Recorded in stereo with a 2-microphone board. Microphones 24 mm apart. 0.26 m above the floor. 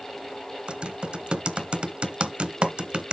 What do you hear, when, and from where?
0.7 s typing on a keyboard: 55° right (ahead or behind), 1.6 m